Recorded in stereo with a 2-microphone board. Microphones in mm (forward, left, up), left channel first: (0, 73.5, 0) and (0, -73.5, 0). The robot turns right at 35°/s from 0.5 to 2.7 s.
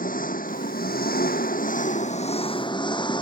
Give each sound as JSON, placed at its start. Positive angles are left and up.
{"t": 0.0, "sound": "an engine running", "azimuth_deg": 70}